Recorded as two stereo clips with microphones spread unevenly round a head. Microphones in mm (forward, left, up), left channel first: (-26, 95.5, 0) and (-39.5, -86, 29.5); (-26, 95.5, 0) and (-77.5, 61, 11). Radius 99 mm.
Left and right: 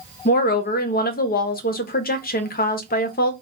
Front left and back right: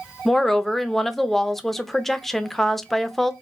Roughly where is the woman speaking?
Behind left.